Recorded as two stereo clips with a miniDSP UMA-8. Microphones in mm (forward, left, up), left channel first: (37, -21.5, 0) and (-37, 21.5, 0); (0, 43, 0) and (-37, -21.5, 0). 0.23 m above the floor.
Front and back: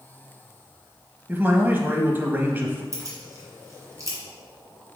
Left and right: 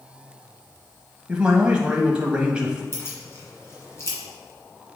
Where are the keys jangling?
105° left, 2 m.